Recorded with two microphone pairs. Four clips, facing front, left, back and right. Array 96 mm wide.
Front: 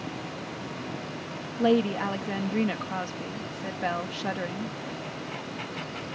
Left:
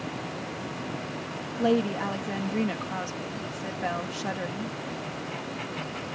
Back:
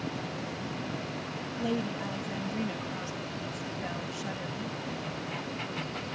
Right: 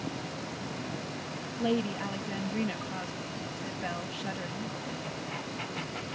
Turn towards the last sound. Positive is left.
turn(degrees=35)